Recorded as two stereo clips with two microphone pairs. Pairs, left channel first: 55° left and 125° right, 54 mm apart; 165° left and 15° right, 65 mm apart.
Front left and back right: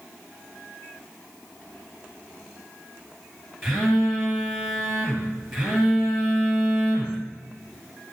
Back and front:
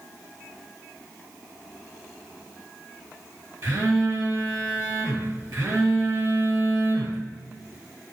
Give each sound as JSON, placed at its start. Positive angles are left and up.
{"t": 3.6, "sound": "a phone buzzing", "azimuth_deg": -40, "distance_m": 7.0}